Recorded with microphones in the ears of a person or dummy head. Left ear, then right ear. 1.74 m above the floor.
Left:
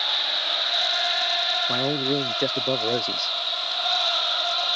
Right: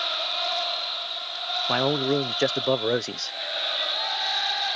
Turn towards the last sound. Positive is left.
turn(degrees=-40)  # may be behind; listen again after turning